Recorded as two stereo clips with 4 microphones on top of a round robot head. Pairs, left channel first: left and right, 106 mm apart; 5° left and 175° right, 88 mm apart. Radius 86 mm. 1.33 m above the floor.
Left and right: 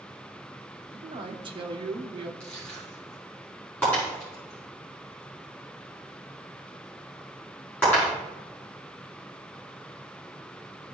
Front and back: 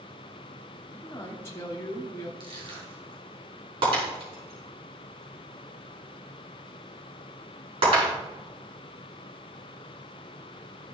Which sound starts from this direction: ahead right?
A man speaking, at 0.9 s.